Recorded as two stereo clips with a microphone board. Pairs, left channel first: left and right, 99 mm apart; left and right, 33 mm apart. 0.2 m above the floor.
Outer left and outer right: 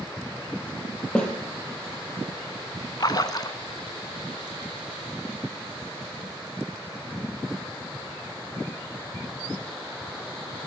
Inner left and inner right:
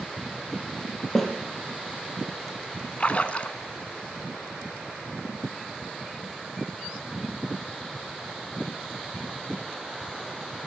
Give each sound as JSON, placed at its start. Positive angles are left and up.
{"t": 1.1, "sound": "a snare drum", "side_deg": 10, "distance_m": 5.0}
{"t": 3.0, "sound": "a splash", "side_deg": 45, "distance_m": 1.2}